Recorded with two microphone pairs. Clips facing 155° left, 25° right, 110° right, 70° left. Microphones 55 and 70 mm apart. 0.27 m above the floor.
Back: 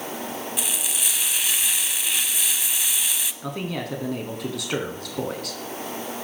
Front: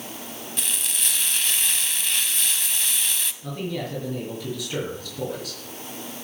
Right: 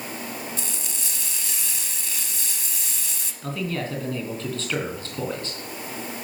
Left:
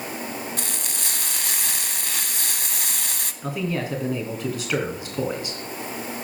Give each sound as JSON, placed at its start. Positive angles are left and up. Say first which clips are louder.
{"t": 0.6, "sound": "frying", "louder": "back 1 dB, left 3 dB", "azimuth_deg": 75, "distance_m": 0.8}
{"t": 3.4, "sound": "a man speaking", "louder": "back 1 dB, left 2 dB", "azimuth_deg": 145, "distance_m": 3.0}